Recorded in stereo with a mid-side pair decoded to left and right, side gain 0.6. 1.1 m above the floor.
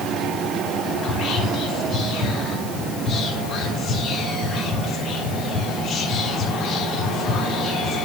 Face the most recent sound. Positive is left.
turn(degrees=35)